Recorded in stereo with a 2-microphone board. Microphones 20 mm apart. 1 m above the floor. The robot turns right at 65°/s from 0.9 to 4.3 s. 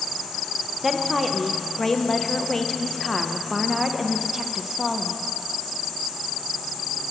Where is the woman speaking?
Centre (ahead or behind), 0.5 m; by 5.2 s 15° right (ahead or behind), 0.5 m.